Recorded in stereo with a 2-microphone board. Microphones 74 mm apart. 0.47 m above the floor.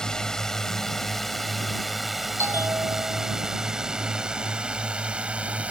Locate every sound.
0.0 s a drone: 10° left (ahead or behind); by 5.7 s 15° right (ahead or behind)
2.4 s a bell: 35° right (ahead or behind)